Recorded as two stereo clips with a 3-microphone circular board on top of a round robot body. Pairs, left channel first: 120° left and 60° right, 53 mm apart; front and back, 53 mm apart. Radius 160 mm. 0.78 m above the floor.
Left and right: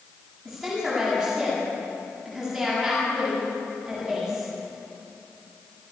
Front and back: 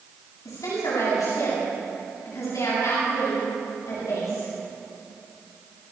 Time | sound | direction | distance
0.5 | a woman speaking | 30° left | 9 m